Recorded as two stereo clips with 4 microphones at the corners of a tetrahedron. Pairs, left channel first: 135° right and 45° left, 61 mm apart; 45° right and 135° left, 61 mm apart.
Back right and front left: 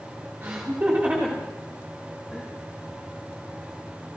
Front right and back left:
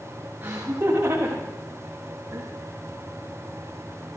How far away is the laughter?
About 2.5 m.